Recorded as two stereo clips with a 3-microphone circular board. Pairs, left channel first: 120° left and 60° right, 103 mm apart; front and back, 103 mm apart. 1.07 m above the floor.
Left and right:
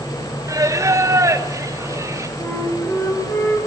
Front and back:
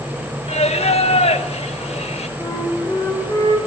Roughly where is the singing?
Ahead.